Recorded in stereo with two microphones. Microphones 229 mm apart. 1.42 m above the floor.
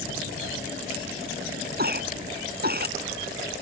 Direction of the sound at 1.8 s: 45° right (ahead or behind).